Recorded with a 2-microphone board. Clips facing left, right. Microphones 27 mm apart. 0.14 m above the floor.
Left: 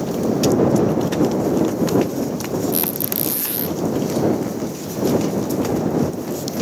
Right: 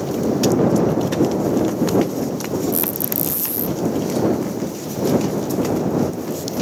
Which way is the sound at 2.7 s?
50° left (ahead or behind).